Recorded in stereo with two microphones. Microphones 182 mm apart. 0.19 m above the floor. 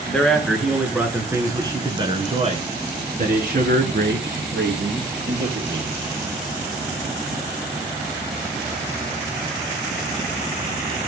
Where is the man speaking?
5° left (ahead or behind), 3 m; by 5.9 s 70° right (ahead or behind), 4.5 m.